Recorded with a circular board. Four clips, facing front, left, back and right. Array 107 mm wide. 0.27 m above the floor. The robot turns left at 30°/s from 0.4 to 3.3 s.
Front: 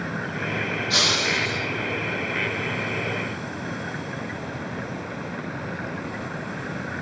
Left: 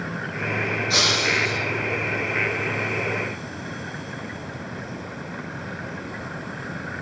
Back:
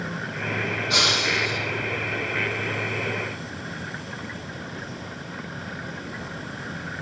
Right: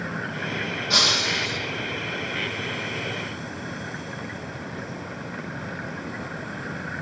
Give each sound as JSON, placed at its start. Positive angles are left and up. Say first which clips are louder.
{"t": 0.9, "sound": "breaking glass", "louder": "left 1 dB, back 1 dB", "azimuth_deg": -100, "distance_m": 7.0}